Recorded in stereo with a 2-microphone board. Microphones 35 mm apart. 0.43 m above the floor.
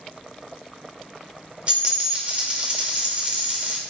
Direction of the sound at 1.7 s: 30° right (ahead or behind).